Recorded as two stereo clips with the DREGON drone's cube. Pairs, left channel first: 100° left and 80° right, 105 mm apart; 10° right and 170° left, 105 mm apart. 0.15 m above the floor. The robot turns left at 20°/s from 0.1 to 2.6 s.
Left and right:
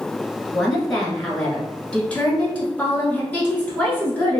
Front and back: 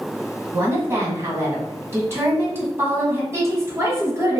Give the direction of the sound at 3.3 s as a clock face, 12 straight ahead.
7 o'clock.